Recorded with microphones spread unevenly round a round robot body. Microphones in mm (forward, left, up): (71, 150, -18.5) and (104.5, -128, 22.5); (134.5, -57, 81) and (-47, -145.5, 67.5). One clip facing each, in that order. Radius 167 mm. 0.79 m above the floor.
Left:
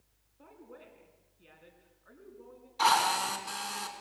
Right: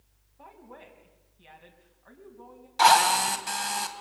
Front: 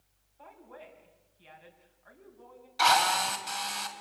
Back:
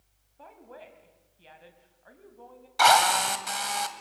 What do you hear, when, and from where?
0.4 s a woman speaking: 115° right, 4.5 m
2.8 s a drill: 125° right, 2.5 m